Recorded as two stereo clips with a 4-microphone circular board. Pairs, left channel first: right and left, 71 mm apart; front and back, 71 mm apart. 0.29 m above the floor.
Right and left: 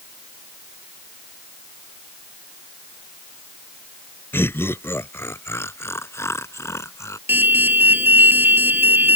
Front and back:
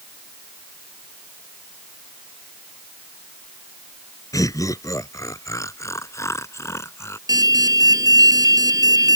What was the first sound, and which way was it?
Laughter, 35° right.